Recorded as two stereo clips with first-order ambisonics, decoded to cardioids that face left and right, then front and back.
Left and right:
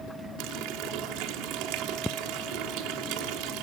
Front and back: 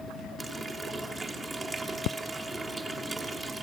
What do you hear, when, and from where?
0.4 s a running tap: 100° right, 1.3 m